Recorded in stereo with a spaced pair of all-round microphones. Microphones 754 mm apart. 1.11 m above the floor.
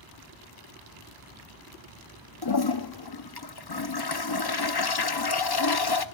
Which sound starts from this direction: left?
A toilet flushing, at 2.4 s.